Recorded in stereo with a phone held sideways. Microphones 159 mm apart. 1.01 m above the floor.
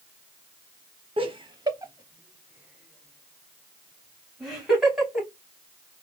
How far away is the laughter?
About 0.7 m.